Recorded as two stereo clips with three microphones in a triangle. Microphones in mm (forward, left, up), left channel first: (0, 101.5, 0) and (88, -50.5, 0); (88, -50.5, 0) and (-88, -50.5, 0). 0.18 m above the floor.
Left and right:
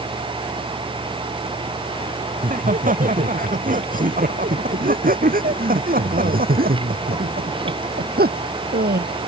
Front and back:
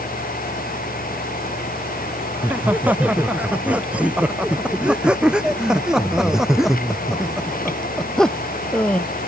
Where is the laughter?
100° right; by 9.1 s 80° right.